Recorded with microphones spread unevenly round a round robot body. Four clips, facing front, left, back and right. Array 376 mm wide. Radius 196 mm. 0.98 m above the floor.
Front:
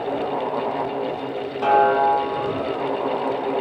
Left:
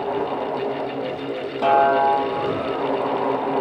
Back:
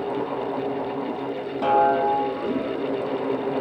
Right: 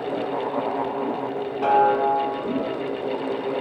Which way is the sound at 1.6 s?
135° left.